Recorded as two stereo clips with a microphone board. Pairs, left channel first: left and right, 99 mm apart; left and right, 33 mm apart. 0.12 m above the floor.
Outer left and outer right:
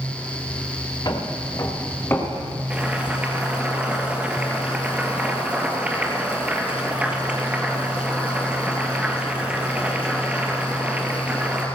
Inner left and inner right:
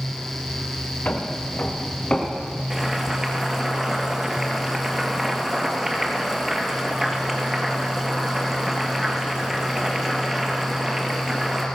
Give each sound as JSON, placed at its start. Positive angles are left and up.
{"t": 1.1, "sound": "footsteps", "side_deg": 45, "distance_m": 2.5}
{"t": 2.7, "sound": "boiling", "side_deg": -15, "distance_m": 2.5}